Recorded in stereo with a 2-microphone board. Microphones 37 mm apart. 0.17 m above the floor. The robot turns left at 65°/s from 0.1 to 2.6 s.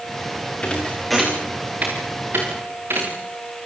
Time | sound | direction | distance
0.6 | a thud | 35° left (ahead or behind) | 7.5 m